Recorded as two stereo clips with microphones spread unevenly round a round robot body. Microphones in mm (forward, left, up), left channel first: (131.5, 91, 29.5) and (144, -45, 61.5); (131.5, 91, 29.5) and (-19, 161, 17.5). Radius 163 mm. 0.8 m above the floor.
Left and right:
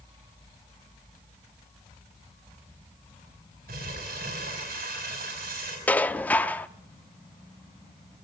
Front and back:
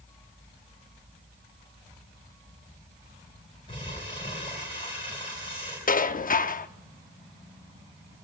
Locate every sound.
3.7 s crumpling: 100° right, 5 m
5.9 s dishes clattering: 15° left, 1.1 m